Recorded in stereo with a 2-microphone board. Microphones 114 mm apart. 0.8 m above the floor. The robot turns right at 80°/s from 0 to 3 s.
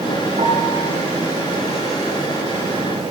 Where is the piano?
90° right, 8 m; by 0.8 s 55° right, 8 m.